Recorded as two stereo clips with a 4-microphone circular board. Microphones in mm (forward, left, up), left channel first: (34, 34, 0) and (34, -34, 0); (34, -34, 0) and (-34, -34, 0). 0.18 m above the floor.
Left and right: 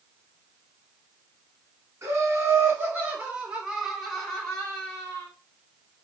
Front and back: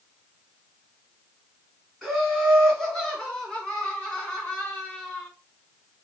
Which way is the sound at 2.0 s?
85° right.